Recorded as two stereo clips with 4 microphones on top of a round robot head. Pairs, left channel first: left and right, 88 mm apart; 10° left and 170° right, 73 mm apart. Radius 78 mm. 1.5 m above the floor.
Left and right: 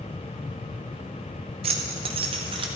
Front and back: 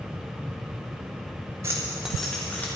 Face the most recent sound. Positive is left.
turn(degrees=-70)